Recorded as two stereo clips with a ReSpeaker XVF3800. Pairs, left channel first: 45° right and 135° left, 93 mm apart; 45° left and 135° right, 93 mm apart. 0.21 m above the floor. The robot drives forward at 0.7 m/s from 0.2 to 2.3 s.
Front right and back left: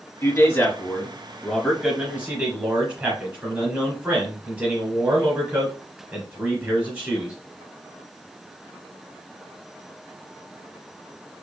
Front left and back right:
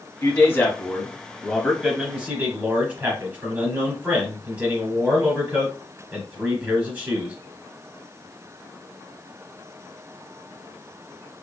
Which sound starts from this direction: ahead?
A man speaking, at 0.2 s.